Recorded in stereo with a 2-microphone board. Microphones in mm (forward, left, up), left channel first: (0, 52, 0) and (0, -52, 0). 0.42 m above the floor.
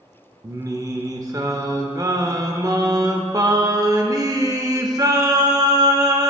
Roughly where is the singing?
Right.